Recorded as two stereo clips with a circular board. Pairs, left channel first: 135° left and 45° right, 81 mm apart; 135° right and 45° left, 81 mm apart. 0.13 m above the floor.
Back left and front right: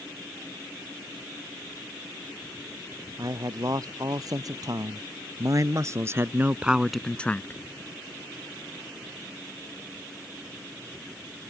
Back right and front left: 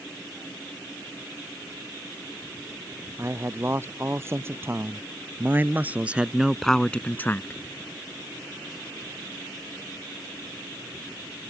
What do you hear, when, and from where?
3.2 s a man speaking: 10° right; by 7.6 s 175° right